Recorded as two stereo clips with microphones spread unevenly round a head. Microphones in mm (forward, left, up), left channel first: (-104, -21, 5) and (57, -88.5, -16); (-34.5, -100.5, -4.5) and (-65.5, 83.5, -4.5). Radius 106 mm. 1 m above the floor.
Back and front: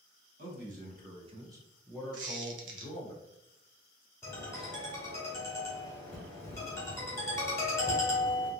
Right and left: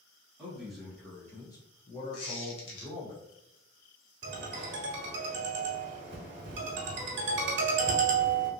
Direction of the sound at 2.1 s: 40° right.